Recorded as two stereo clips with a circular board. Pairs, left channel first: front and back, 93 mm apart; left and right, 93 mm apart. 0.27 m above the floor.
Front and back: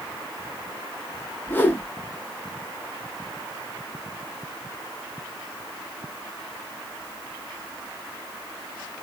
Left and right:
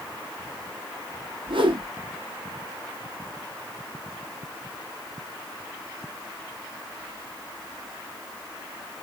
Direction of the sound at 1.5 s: 70° right.